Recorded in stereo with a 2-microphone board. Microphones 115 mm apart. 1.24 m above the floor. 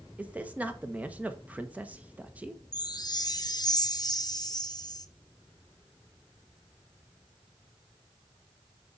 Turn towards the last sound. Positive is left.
turn(degrees=35)  # may be behind; listen again after turning